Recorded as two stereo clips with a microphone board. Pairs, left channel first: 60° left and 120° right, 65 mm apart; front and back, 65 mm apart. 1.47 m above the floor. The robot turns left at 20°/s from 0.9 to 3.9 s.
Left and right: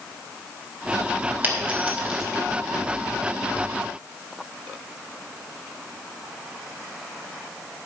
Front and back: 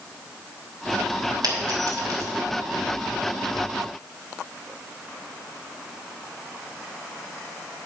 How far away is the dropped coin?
About 3 m.